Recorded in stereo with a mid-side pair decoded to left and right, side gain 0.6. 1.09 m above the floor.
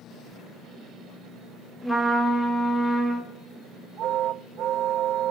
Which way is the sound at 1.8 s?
Straight ahead.